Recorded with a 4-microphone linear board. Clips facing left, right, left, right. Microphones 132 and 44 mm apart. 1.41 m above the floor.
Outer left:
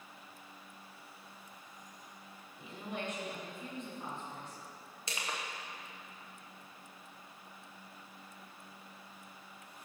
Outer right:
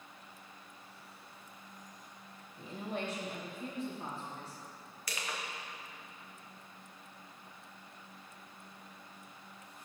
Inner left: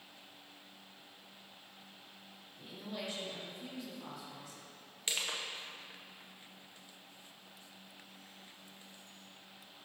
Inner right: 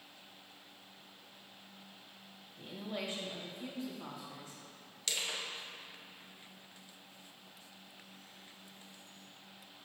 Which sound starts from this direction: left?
Crushing, at 5.1 s.